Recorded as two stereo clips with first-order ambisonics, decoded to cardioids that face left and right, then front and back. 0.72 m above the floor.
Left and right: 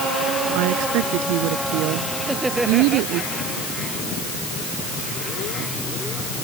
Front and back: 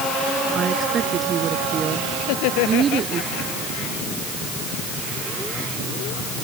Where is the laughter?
10° right.